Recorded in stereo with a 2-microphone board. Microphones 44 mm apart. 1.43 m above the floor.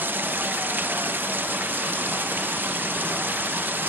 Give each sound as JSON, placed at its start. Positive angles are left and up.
{"t": 0.0, "sound": "running water", "side_deg": -50, "distance_m": 0.7}